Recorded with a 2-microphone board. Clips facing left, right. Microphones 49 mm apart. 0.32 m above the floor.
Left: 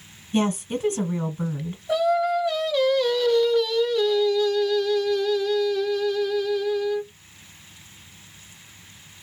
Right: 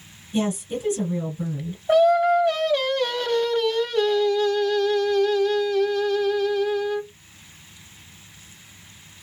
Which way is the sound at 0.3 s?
45° left (ahead or behind).